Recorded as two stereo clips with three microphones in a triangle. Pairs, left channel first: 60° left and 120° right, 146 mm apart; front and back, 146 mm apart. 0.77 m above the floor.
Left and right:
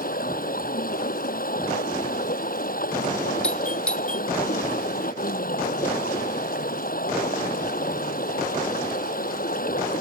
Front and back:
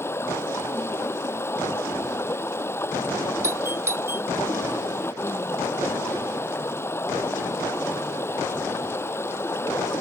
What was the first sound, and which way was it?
Running water, 75° left.